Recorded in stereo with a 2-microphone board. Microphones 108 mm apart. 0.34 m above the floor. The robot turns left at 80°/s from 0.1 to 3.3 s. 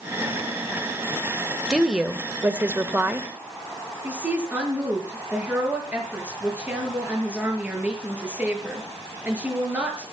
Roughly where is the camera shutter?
I don't hear a camera shutter.